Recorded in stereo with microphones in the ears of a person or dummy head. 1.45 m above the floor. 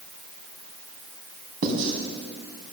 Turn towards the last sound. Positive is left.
turn(degrees=-55)  # may be behind; listen again after turning